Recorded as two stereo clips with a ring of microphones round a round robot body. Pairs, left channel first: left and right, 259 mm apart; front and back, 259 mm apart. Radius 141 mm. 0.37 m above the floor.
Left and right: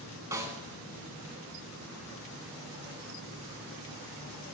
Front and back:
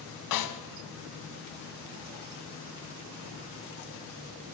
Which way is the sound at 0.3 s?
10° right.